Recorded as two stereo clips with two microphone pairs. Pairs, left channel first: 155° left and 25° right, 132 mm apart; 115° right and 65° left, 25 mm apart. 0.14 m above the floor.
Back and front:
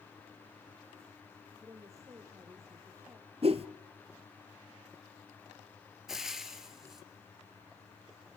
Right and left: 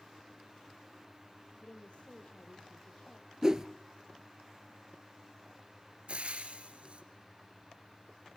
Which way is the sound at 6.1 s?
60° left.